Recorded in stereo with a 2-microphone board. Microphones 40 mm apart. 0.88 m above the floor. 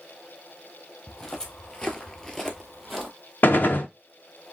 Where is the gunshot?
60° left (ahead or behind), 0.7 m.